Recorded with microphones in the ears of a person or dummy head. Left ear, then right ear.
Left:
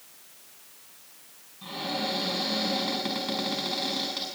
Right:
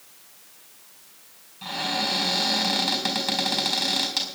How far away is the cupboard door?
About 4.5 m.